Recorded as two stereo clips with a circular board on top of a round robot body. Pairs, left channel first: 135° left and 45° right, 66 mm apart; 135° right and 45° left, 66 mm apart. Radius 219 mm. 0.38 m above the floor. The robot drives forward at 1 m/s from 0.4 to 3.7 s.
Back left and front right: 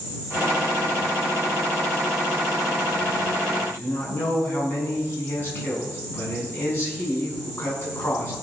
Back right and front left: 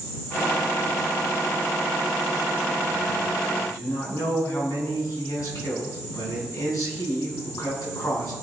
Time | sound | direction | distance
3.6 | a man speaking | 170° right | 6 m